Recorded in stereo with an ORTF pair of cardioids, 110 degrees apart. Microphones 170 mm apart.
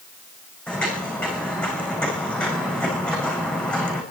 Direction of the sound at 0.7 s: 5° left.